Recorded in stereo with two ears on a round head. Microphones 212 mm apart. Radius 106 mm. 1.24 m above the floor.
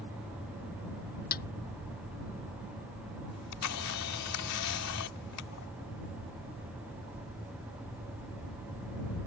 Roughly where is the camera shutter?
Left.